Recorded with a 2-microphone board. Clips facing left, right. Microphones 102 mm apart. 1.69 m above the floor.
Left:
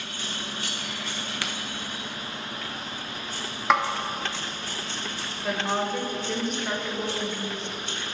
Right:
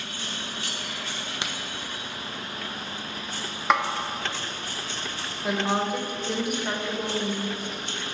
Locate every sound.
1.4 s a crack: 20° right (ahead or behind), 0.8 m
3.7 s a snare drum: centre (ahead or behind), 0.8 m
5.4 s a woman speaking: 10° right (ahead or behind), 1.1 m